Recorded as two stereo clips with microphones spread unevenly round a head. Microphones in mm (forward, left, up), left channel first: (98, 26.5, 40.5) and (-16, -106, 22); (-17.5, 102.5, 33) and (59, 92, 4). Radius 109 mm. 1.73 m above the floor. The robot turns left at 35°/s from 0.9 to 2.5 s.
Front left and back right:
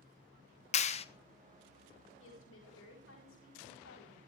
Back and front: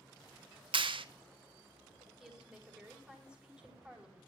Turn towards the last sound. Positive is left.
turn(degrees=70)